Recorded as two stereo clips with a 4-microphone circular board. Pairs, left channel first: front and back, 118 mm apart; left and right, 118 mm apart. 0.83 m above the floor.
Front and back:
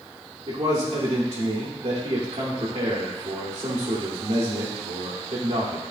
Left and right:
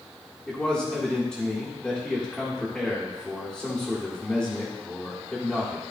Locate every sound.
0.5 s a man speaking: 175° left, 1.7 m